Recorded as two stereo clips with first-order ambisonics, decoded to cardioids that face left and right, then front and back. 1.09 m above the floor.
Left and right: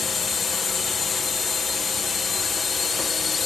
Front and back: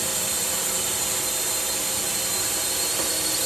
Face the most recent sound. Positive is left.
turn(degrees=110)